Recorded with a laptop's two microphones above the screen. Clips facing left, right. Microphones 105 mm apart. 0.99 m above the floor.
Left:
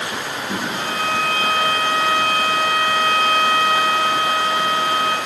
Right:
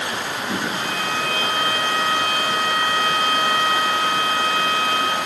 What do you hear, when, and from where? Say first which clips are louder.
0.7 s a violin: left 2 dB; 30° left (ahead or behind), 1.1 m